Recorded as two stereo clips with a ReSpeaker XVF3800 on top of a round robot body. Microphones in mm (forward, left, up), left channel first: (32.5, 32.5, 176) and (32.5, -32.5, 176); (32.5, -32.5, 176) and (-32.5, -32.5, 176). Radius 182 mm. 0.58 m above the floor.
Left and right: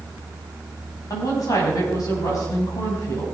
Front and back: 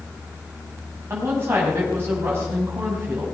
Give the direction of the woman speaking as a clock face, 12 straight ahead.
8 o'clock.